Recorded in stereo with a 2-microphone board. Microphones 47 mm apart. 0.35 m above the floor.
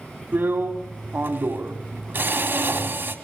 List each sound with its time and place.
0.3 s a drill: 45° right (ahead or behind), 2.5 m